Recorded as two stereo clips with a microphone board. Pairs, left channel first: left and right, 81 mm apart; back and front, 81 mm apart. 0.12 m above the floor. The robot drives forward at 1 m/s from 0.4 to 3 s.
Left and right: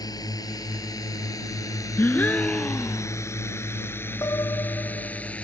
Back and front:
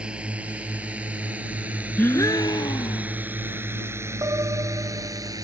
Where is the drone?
75° left; by 5.4 s 20° left.